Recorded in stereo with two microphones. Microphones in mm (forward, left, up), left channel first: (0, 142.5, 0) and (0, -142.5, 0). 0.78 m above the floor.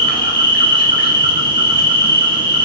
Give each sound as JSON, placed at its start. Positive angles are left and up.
{"t": 0.0, "sound": "an insect", "side_deg": 40, "distance_m": 0.9}